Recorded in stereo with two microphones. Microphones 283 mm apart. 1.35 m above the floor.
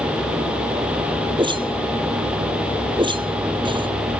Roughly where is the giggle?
I don't hear a giggle.